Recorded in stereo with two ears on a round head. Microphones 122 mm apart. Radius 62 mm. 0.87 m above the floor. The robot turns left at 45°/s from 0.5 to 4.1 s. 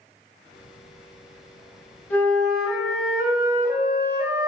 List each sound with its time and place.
2.1 s a flute: 20° left, 1.2 m; by 4.5 s 70° right, 1.2 m